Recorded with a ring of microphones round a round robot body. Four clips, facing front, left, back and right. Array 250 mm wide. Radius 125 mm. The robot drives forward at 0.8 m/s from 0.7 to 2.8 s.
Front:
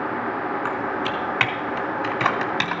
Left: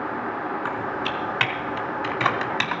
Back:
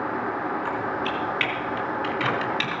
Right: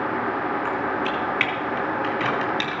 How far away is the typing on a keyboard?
About 3.5 m.